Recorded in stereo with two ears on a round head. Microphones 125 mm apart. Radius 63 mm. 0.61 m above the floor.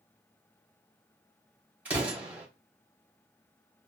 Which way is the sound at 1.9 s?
10° right (ahead or behind).